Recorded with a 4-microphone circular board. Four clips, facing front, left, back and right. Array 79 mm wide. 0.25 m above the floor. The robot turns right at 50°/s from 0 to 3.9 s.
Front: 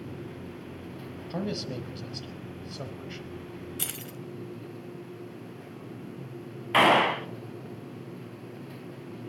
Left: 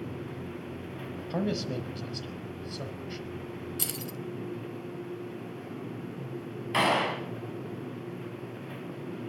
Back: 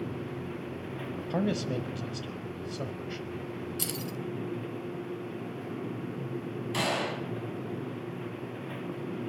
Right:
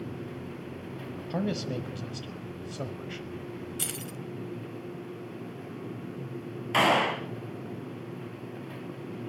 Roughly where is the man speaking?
Behind.